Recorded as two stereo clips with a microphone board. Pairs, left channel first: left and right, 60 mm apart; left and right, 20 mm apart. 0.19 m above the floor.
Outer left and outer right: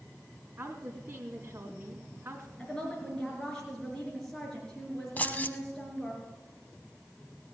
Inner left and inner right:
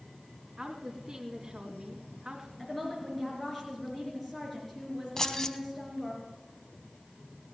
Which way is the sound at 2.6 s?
10° left (ahead or behind).